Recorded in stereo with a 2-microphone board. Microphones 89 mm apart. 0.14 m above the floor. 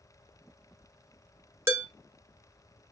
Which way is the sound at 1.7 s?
30° right (ahead or behind).